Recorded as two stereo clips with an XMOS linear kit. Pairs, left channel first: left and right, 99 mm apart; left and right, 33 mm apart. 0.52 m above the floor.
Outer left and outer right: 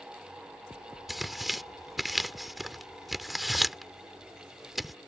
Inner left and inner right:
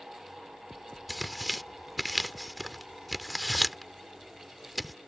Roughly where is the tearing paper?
Centre.